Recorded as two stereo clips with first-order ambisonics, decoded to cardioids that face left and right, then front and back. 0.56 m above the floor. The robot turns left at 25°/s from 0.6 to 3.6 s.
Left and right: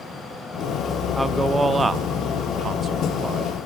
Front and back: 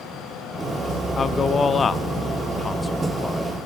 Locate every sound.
1.2 s a man speaking: 20° right, 0.6 m; by 3.5 s 80° right, 0.6 m